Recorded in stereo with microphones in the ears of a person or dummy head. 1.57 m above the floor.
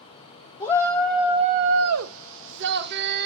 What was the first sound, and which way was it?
A shout, 20° left (ahead or behind).